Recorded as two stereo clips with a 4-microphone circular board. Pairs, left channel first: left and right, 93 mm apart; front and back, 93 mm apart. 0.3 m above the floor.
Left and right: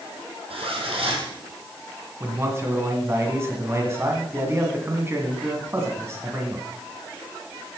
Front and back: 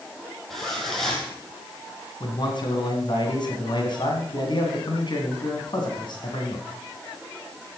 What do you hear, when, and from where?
0.5 s a zipper: 90° right, 2.5 m
2.2 s a man speaking: 30° right, 2.5 m